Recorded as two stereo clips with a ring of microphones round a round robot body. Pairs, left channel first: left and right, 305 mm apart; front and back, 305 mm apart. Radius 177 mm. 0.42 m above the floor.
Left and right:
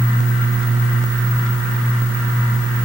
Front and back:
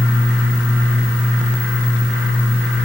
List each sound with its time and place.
Only background noise.